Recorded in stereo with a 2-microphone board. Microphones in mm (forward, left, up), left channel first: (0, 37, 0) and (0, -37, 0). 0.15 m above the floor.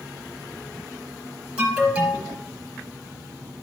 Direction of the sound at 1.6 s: 20° right (ahead or behind).